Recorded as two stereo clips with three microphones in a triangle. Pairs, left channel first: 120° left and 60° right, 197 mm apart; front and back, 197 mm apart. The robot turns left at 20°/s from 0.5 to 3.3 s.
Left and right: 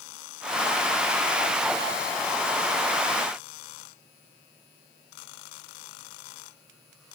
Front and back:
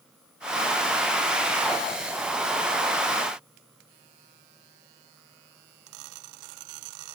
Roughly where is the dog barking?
I don't hear a dog barking.